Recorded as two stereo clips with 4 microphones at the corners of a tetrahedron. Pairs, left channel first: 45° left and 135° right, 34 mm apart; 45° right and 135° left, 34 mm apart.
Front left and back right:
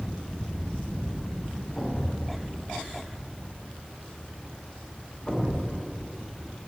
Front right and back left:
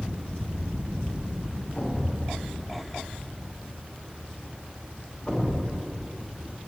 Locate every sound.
1.8 s a thud: 5° right, 1.0 m